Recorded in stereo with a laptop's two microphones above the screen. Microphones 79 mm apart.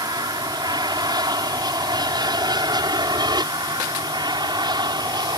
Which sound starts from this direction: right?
An aircraft, at 0.0 s.